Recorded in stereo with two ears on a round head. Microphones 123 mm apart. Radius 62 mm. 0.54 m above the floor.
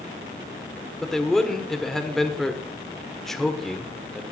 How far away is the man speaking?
About 1.7 m.